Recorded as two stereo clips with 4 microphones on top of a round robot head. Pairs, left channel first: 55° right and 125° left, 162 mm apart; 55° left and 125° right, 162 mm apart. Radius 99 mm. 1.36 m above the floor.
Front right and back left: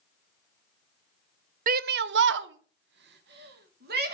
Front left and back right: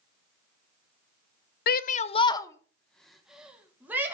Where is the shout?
85° left, 0.6 m; by 4.1 s 155° left, 1.8 m.